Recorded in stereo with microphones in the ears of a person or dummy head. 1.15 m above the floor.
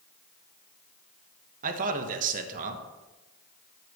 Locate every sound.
1.6 s a man speaking: 45° right (ahead or behind), 1.5 m